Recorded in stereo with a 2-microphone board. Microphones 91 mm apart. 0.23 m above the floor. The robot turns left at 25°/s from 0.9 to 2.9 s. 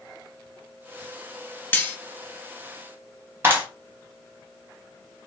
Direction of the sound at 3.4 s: 25° right (ahead or behind).